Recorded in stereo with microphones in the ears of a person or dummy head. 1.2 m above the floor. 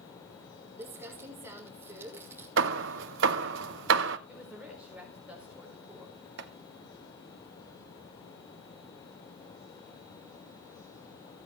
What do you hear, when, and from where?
0.8 s crumpling: 15° right (ahead or behind), 2.5 m
2.6 s hammering: 70° right (ahead or behind), 0.7 m
4.3 s a woman speaking: 5° right (ahead or behind), 4 m
6.4 s chopping: 65° right (ahead or behind), 1.0 m